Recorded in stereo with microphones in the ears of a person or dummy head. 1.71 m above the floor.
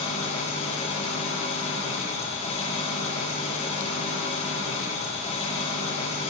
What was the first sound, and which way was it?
An engine running, 40° left (ahead or behind).